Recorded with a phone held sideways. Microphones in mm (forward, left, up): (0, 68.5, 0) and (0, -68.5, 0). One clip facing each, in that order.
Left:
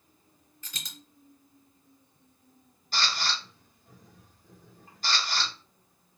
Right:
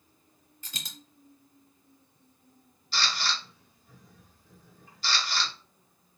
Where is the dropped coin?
30° right (ahead or behind), 1.3 m.